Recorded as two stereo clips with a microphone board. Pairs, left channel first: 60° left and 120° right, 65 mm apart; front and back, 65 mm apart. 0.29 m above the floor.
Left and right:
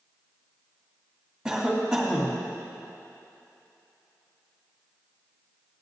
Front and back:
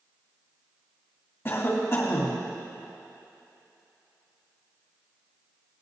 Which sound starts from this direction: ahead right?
A cough, at 1.4 s.